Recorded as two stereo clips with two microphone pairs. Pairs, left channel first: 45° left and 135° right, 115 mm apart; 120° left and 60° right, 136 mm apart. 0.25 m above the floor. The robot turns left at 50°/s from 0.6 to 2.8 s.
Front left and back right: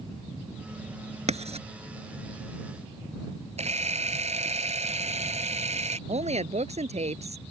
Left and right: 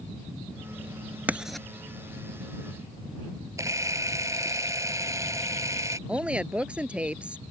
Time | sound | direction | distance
1.3 | writing | 140° right | ?
3.6 | a camera shutter | 130° right | ?
6.1 | a woman speaking | 145° right | ?